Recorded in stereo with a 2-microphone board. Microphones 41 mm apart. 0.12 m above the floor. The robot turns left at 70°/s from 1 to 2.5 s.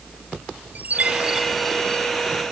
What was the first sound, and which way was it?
A chime, 135° right.